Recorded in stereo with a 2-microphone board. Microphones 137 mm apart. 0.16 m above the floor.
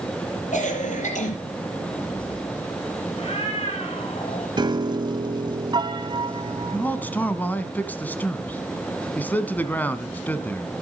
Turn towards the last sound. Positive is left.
turn(degrees=15)  # may be behind; listen again after turning